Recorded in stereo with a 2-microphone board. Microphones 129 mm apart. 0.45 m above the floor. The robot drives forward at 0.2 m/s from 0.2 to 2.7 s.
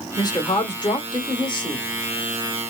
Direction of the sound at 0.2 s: 35° left (ahead or behind).